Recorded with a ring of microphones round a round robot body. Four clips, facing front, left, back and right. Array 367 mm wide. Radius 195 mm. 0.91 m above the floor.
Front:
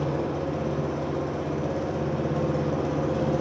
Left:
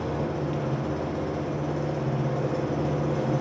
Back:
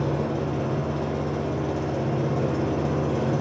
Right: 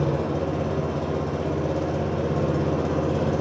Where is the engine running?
90° right, 4 m.